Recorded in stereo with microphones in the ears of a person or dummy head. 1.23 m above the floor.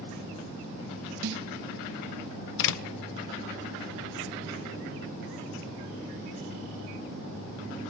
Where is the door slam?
70° left (ahead or behind), 0.9 m.